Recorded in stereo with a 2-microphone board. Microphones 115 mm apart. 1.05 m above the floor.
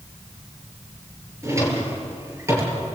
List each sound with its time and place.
1.4 s a drawer: 25° right (ahead or behind), 5.5 m